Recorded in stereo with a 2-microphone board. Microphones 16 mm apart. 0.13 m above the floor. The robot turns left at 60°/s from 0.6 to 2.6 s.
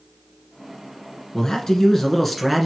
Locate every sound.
1.3 s a man speaking: 75° left, 1.3 m; by 2.7 s straight ahead, 1.3 m